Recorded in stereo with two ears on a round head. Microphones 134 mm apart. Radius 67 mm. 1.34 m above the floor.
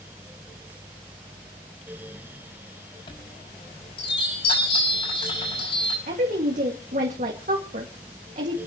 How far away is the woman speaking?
About 1.9 m.